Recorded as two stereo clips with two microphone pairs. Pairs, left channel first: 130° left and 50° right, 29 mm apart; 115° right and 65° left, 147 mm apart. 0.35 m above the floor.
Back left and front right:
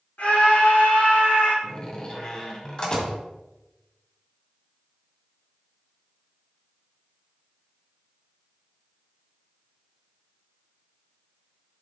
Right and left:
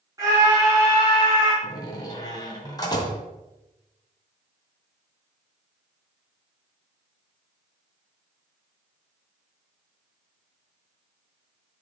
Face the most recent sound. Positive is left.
turn(degrees=-175)